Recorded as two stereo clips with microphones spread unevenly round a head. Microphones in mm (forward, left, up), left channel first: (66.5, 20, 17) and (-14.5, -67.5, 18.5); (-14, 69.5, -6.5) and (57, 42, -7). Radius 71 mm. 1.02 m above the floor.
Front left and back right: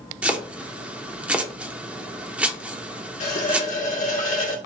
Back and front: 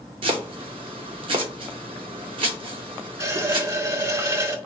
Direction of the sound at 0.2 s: 55° right.